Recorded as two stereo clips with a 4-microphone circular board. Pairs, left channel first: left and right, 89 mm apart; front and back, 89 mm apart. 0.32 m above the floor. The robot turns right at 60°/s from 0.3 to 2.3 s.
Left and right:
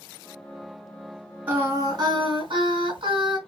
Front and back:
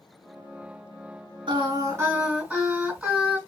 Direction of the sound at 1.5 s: 160° right.